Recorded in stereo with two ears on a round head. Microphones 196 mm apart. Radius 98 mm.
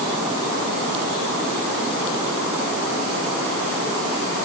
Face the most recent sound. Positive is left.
No sound to turn to.